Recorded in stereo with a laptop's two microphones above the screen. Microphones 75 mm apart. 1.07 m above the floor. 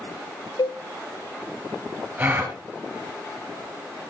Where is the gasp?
25° right (ahead or behind), 3.5 m.